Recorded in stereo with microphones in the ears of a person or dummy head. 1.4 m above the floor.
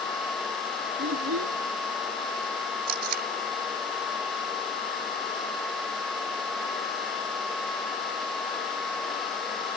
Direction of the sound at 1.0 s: 90° right.